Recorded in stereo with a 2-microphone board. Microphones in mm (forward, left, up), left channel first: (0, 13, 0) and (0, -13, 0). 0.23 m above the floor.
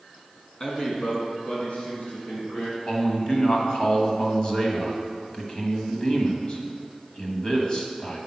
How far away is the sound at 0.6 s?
About 2.0 m.